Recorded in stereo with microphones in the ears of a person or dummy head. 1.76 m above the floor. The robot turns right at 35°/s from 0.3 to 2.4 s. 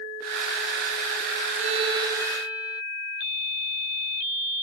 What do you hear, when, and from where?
1.6 s a violin: 35° right (ahead or behind); by 2.8 s 10° right (ahead or behind)